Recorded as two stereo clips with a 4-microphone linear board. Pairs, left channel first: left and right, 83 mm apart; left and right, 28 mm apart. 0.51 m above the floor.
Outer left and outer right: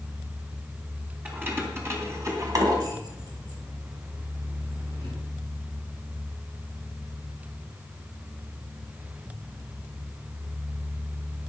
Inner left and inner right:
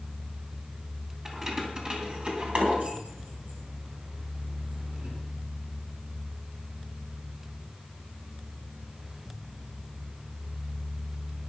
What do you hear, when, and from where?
1.2 s keys jangling: 20° right (ahead or behind), 3 m; by 5.2 s 75° right (ahead or behind), 4 m